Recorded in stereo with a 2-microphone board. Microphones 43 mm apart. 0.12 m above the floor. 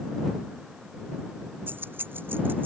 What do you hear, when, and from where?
1.7 s keys jangling: 50° right (ahead or behind)